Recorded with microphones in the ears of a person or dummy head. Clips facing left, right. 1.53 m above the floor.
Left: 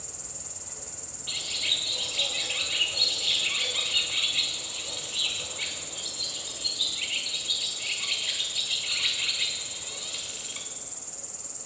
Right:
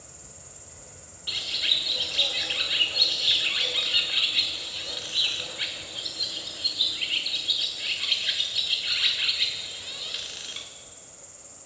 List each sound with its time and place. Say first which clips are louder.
0.0 s an insect: left 3 dB; 60° left (ahead or behind), 0.8 m
1.3 s a bird: right 2 dB; 15° right (ahead or behind), 0.7 m